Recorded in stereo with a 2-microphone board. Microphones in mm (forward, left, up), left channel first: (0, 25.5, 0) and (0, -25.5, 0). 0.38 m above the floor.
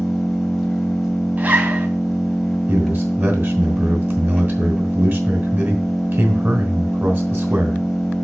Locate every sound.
0.0 s an engine running: centre (ahead or behind), 1.7 m
1.4 s a zipper: 40° right (ahead or behind), 2.5 m
2.7 s a man speaking: 50° right (ahead or behind), 2.5 m